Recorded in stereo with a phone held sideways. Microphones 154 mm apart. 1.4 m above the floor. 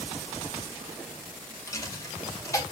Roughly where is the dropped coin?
Centre.